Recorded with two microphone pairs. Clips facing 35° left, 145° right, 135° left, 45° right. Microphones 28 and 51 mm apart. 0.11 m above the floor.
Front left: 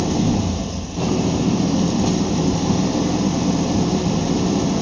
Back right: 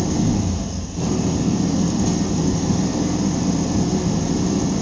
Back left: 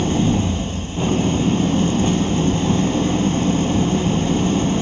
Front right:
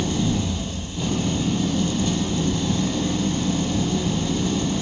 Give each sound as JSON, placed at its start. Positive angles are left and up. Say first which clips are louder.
{"t": 0.0, "sound": "an engine running", "louder": "front left 1 dB, back left 5 dB", "azimuth_deg": 90, "distance_m": 1.8}